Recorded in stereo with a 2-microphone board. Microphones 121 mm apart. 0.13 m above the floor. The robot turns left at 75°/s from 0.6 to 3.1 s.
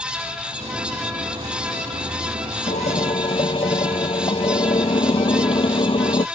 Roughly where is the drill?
Left.